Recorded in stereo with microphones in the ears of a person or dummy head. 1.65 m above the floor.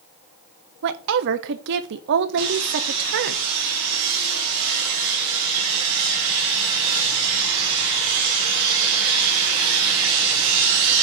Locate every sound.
0.8 s a woman speaking: 65° right (ahead or behind), 1.1 m
2.4 s sawing: 80° right, 5 m